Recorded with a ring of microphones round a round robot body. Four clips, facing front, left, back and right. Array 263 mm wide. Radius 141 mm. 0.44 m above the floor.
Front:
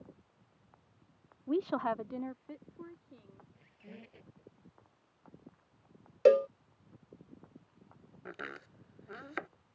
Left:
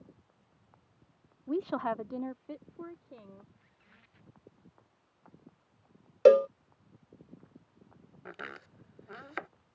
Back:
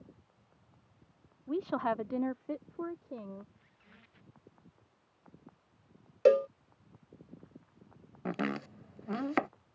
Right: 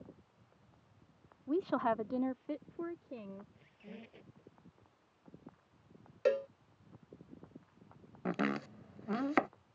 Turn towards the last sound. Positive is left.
turn(degrees=-135)